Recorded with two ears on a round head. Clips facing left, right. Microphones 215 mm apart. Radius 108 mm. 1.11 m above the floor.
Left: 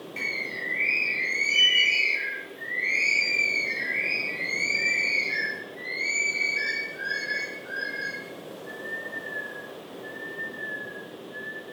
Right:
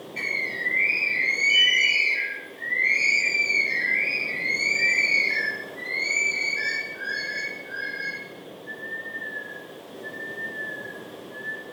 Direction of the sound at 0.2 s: 20° left (ahead or behind).